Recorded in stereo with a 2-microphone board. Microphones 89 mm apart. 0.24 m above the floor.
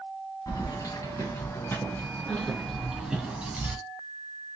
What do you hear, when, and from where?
0.5 s keys jangling: 45° left (ahead or behind), 1.3 m; by 3.8 s 15° right (ahead or behind), 1.4 m